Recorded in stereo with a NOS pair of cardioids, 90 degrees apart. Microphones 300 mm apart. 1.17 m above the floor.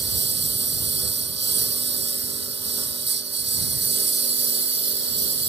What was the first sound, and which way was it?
A lawn mower, 35° right.